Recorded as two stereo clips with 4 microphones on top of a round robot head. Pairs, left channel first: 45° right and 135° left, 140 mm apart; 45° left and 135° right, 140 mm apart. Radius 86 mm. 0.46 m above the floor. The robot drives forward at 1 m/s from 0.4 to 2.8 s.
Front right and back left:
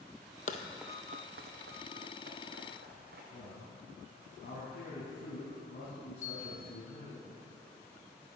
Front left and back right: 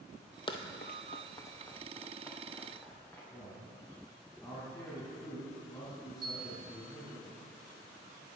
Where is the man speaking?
25° right, 3.5 m.